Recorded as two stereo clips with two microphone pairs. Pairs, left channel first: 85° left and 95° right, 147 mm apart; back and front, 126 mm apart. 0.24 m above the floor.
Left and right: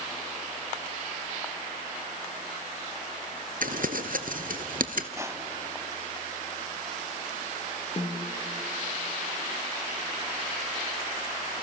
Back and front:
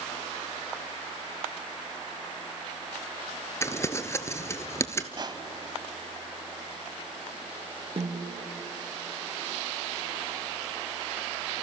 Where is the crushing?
35° right, 0.9 m.